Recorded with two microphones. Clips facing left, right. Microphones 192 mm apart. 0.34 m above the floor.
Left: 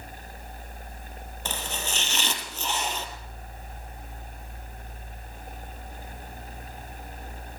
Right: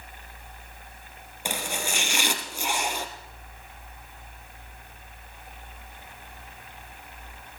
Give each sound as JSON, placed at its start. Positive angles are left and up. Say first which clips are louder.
{"t": 1.4, "sound": "chopping", "louder": "right 3 dB", "side_deg": -10, "distance_m": 3.5}